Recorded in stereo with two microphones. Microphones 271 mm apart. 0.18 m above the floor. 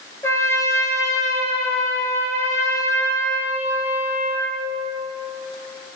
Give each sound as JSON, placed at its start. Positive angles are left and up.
{"t": 0.2, "sound": "a trumpet", "side_deg": 10, "distance_m": 2.0}